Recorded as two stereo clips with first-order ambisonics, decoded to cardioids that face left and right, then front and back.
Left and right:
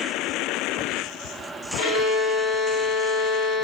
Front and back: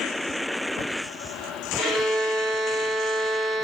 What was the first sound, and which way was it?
A violin, 95° left.